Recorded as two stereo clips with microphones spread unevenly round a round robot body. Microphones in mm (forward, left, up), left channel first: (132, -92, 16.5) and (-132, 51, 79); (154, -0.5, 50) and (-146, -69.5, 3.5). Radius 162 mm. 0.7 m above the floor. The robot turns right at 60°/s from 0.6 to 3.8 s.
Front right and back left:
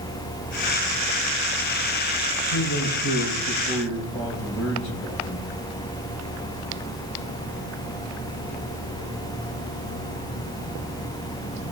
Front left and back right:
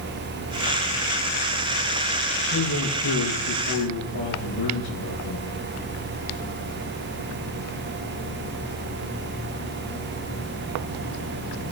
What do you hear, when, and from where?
2.5 s a man speaking: 60° right, 7.5 m; by 5.5 s 15° left, 7.5 m